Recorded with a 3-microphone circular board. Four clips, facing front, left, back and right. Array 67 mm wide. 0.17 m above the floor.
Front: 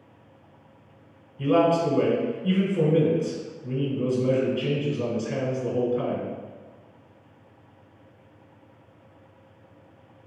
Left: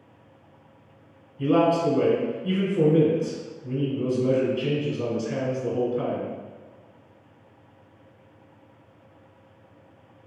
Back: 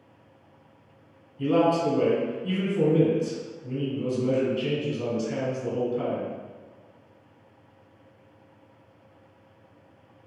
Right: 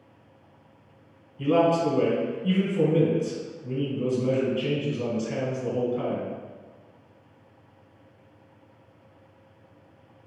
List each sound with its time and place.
1.4 s a man speaking: 25° right, 1.0 m